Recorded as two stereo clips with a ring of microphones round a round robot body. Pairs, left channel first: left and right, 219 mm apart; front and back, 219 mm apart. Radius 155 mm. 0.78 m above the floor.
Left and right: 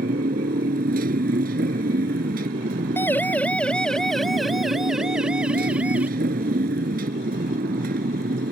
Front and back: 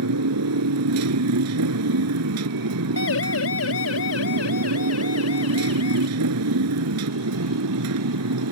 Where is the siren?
10° left; by 6.1 s 5° right.